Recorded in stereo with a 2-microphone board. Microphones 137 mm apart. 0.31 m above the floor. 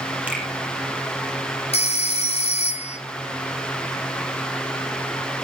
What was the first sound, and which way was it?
A finger snap, 10° right (ahead or behind).